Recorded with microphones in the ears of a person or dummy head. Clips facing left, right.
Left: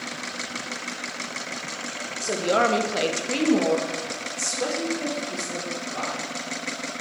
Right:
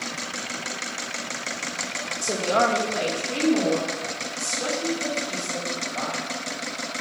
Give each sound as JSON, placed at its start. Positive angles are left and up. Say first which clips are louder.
{"t": 2.2, "sound": "a woman speaking", "louder": "even", "side_deg": 5, "distance_m": 0.8}